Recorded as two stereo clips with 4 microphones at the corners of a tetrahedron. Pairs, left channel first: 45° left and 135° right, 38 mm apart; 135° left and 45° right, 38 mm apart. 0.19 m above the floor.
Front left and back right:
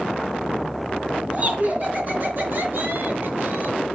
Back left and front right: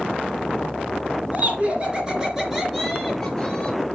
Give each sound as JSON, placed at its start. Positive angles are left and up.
{"t": 1.3, "sound": "laughter", "azimuth_deg": -90, "distance_m": 3.0}